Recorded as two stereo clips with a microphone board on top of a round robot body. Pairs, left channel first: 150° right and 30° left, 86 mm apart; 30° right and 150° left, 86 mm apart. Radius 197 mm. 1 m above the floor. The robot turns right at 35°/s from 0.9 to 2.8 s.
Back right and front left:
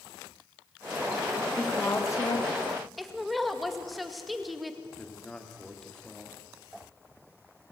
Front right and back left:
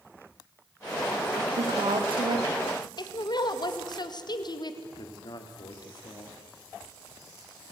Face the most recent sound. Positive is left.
turn(degrees=-70)